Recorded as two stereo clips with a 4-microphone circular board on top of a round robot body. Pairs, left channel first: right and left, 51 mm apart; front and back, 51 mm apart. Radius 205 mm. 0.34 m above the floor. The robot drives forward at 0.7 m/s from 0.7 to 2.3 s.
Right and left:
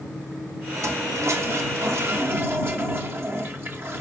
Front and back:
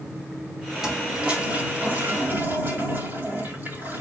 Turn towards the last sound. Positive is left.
turn(degrees=125)